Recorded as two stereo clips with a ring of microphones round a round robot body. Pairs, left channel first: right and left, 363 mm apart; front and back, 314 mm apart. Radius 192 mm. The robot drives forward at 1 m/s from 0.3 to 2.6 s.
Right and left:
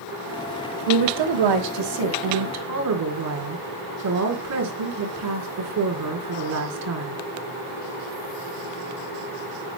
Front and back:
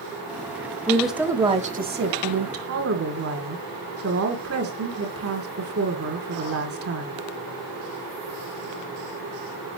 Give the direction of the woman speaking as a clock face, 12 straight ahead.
9 o'clock.